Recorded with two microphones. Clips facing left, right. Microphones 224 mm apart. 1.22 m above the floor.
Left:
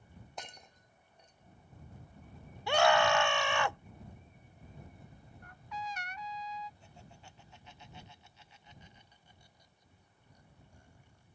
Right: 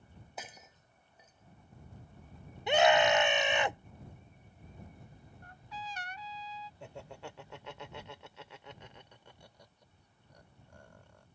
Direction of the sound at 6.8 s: 85° right.